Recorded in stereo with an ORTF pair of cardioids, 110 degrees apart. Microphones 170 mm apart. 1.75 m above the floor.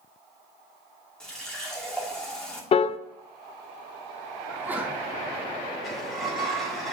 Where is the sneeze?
10° right, 4.5 m.